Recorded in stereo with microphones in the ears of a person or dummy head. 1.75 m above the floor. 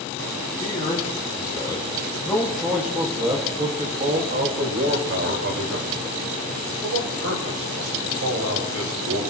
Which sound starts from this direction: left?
A man speaking, at 0.6 s.